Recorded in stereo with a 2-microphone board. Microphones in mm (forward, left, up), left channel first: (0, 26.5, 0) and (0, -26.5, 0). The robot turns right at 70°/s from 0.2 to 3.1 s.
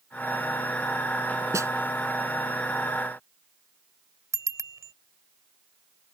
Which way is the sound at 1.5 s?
75° right (ahead or behind).